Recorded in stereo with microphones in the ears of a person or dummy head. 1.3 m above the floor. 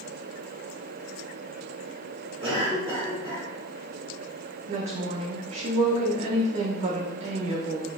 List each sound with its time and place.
2.4 s a cough: 20° right (ahead or behind), 1.4 m
4.7 s a woman speaking: 30° right (ahead or behind), 0.6 m